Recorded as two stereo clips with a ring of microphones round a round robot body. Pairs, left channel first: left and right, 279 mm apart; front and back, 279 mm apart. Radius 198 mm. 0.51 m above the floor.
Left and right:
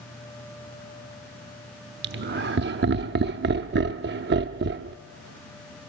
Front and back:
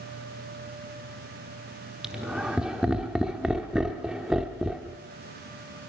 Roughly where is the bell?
I don't hear a bell.